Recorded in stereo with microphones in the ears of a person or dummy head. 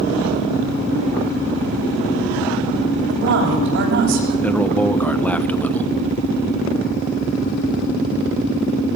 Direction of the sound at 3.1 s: 70° right (ahead or behind).